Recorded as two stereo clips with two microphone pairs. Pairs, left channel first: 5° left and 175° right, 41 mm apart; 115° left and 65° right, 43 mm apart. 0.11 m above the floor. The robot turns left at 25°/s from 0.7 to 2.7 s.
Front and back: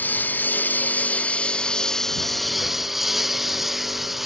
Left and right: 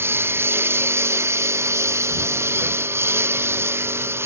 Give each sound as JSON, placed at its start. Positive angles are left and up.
{"t": 0.0, "sound": "a lawn mower", "azimuth_deg": -35}